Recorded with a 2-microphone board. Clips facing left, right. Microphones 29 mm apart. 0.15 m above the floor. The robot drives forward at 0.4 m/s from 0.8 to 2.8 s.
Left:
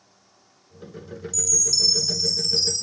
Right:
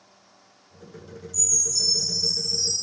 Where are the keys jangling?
I don't hear keys jangling.